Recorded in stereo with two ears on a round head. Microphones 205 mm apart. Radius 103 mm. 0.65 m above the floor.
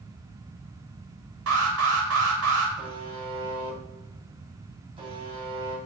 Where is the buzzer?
25° right (ahead or behind), 3.5 m.